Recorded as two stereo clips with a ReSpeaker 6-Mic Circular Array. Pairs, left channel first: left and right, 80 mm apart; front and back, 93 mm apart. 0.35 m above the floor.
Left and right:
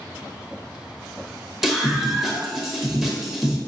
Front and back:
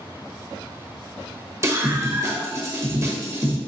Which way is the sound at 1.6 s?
170° right.